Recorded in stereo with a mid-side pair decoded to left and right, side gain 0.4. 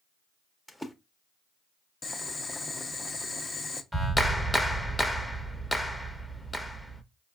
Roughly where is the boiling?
Ahead left.